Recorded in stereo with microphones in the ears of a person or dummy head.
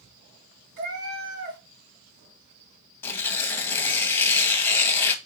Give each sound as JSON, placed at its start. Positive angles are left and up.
{"t": 0.8, "sound": "a cat meowing", "side_deg": -55, "distance_m": 1.5}
{"t": 3.0, "sound": "tearing paper", "side_deg": 10, "distance_m": 0.8}